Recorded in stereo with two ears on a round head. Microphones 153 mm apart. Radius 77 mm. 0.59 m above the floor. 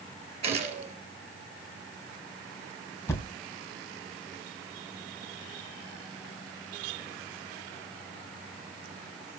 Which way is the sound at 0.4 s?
40° right (ahead or behind).